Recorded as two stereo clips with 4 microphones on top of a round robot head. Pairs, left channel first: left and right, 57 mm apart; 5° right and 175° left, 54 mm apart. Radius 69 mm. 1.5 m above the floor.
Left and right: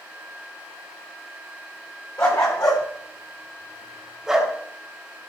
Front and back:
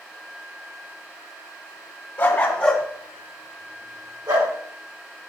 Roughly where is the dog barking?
Ahead left.